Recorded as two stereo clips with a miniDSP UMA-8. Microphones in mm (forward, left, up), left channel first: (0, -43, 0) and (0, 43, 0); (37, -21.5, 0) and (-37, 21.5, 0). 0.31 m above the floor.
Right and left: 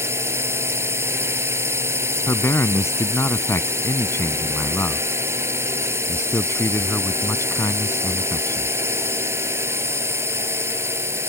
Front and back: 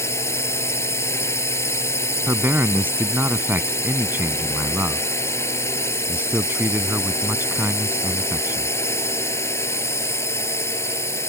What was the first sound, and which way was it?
A drone, 30° left.